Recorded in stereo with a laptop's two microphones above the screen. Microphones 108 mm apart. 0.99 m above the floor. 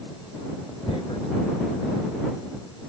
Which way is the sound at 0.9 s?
60° left (ahead or behind).